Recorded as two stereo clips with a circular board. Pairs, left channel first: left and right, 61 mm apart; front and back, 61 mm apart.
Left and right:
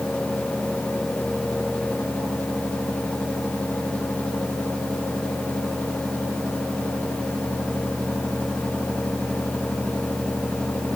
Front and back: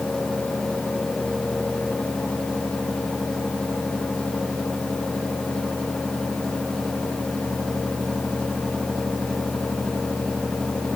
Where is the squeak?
I don't hear a squeak.